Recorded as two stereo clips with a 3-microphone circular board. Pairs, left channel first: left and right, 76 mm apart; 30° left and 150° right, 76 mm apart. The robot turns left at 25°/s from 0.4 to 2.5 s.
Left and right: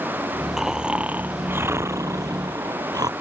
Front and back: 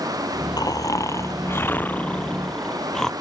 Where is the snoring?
5° right; by 3.1 s 55° right.